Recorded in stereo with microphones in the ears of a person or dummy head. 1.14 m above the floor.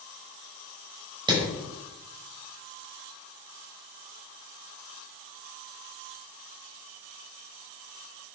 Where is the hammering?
25° right (ahead or behind), 5.5 m.